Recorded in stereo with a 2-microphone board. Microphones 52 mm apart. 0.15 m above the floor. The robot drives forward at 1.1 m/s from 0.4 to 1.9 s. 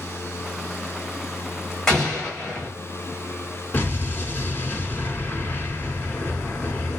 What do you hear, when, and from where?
1.9 s an explosion: 10° left (ahead or behind), 1.9 m
3.7 s an explosion: 35° left (ahead or behind), 2.5 m